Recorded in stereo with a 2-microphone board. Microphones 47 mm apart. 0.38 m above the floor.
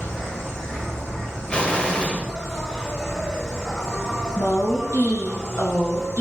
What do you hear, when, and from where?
0.0 s an insect: 10° left (ahead or behind), 5 m
1.5 s an explosion: 25° left (ahead or behind), 1.5 m
4.4 s a woman speaking: 75° left (ahead or behind), 3.5 m